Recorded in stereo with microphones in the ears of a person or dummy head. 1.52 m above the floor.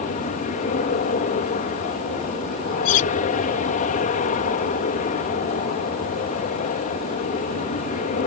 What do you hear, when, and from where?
0.0 s an aircraft: 40° left (ahead or behind)
2.9 s cutlery clinking: 40° left (ahead or behind)